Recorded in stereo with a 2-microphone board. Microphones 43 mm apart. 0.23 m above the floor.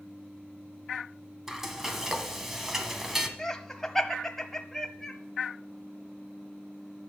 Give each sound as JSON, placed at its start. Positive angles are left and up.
{"t": 1.5, "sound": "frying", "side_deg": -10, "distance_m": 1.4}
{"t": 3.4, "sound": "laughter", "side_deg": 10, "distance_m": 0.9}